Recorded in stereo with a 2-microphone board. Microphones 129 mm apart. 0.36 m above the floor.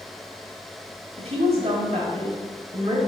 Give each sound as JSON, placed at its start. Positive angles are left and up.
{"t": 1.2, "sound": "a woman speaking", "side_deg": -55, "distance_m": 1.6}